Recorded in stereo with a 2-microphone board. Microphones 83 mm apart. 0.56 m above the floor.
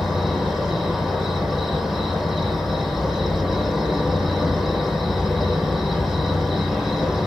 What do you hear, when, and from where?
0.0 s an insect: centre (ahead or behind), 0.8 m